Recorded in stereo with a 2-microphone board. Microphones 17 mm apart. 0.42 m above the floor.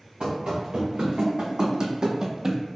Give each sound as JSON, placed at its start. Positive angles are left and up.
{"t": 0.2, "sound": "running footsteps", "side_deg": -60, "distance_m": 1.8}